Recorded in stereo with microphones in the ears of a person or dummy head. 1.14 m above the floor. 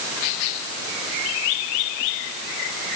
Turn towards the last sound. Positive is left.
No sound to turn to.